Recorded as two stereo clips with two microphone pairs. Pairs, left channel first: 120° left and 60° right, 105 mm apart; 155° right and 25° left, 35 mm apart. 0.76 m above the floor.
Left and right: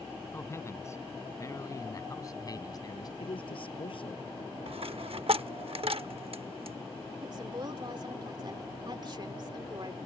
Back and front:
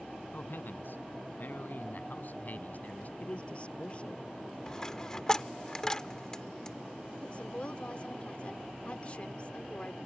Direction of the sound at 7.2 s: 100° right.